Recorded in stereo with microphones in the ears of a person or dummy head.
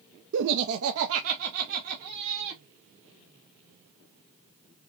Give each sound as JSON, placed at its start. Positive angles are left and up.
{"t": 0.3, "sound": "laughter", "side_deg": -65, "distance_m": 0.7}